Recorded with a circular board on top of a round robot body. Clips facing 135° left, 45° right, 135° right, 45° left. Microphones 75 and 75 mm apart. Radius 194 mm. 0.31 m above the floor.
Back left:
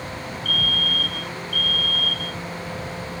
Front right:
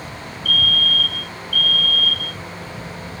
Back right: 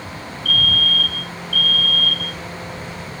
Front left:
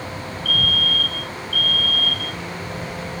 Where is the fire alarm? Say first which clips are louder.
Front right 5 dB, back right 2 dB; 170° right.